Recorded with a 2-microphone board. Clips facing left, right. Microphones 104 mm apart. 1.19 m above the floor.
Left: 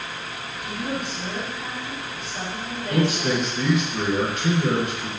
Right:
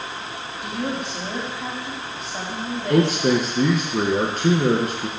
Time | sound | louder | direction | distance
0.6 | a woman speaking | right 2 dB | 85° right | 2.5 m
2.9 | a man speaking | right 4 dB | 40° right (ahead or behind) | 0.9 m